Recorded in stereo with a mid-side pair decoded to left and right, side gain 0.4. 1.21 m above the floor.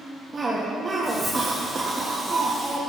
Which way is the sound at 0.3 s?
30° right.